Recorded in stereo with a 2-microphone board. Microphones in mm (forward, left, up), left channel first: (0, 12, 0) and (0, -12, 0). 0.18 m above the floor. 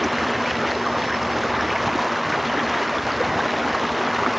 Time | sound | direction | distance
0.0 | running water | 5° right (ahead or behind) | ?